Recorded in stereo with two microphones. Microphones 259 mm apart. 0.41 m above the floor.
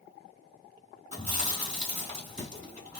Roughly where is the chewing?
Right.